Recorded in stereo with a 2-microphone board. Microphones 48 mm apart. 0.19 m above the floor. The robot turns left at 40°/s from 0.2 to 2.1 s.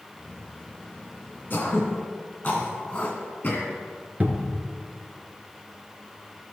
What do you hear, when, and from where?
1.5 s throat clearing: 40° left (ahead or behind), 2 m; by 3.7 s 30° left (ahead or behind), 2 m
4.2 s a cupboard door: 30° right (ahead or behind), 1.0 m